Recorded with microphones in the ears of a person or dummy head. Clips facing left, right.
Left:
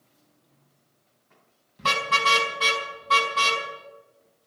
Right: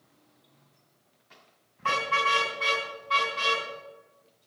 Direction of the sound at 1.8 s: 50° left (ahead or behind).